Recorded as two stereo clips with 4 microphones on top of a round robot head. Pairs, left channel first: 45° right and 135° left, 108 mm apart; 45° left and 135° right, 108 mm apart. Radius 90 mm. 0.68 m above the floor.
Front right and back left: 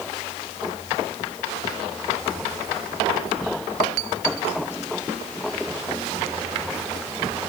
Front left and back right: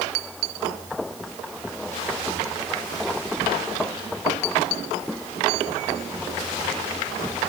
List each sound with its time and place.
Only background noise.